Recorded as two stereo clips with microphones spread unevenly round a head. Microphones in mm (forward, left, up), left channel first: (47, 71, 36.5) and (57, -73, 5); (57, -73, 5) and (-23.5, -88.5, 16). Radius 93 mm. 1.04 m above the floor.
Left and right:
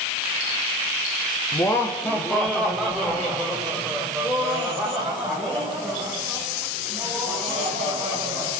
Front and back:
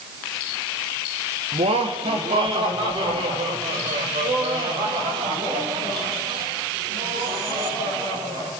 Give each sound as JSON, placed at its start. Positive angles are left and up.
{"t": 1.5, "sound": "laughter", "azimuth_deg": 170, "distance_m": 1.5}